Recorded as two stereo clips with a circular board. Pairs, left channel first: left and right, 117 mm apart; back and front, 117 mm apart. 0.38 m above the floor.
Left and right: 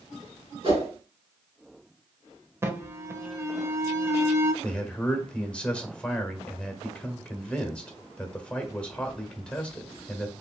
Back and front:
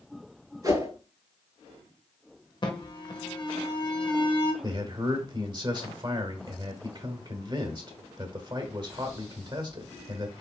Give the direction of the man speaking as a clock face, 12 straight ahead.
12 o'clock.